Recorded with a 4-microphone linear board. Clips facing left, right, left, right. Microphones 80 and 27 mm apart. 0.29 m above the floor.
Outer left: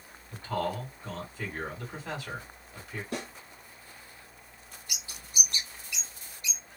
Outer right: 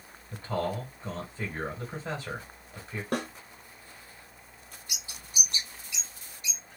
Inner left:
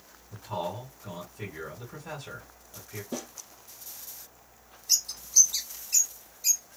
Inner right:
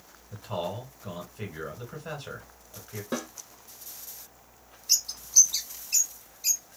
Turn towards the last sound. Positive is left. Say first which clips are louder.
# even, inner right 1 dB
turn(degrees=-25)  # may be behind; listen again after turning